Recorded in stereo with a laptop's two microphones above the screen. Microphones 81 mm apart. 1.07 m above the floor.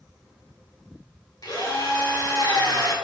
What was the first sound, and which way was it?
A drill, 55° left (ahead or behind).